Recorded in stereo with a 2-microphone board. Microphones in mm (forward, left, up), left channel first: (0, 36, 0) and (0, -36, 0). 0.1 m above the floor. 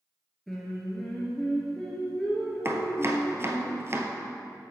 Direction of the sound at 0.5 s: 5° left (ahead or behind).